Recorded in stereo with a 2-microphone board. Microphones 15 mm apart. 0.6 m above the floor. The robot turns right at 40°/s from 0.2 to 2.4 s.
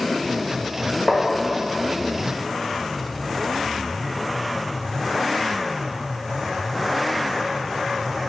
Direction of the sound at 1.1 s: 35° right (ahead or behind).